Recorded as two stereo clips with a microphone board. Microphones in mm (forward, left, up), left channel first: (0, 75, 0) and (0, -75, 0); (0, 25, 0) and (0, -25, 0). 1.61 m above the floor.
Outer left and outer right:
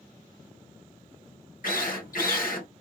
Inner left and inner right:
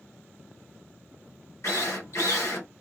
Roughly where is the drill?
Left.